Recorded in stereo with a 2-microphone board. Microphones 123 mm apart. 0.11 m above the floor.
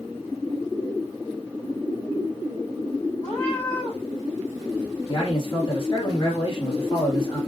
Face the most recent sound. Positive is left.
turn(degrees=45)  # may be behind; listen again after turning